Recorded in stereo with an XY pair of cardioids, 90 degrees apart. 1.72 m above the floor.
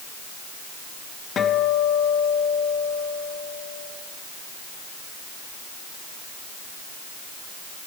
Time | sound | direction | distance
1.4 | a guitar | 60° left | 1.6 m